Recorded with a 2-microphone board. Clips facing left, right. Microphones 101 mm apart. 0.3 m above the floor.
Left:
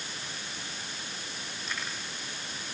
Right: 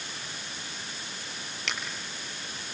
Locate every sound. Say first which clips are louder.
1.7 s a finger snap: right 3 dB; 80° right, 6 m